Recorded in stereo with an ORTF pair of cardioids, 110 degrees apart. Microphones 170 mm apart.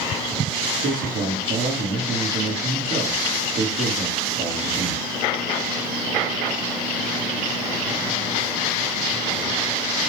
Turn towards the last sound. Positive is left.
turn(degrees=-55)